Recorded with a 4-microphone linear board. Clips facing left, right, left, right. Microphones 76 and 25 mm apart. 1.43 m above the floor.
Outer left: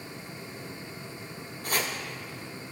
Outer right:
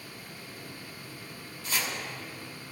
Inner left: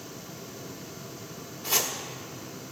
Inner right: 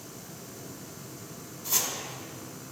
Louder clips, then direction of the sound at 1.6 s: Outer left 3 dB, inner left 3 dB; 50° left (ahead or behind).